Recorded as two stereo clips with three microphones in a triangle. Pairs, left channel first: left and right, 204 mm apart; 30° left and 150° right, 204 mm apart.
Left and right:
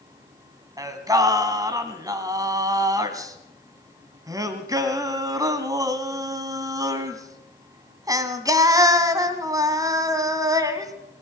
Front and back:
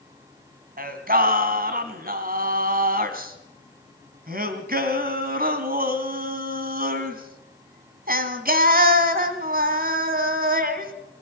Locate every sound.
0.8 s singing: 155° right, 2 m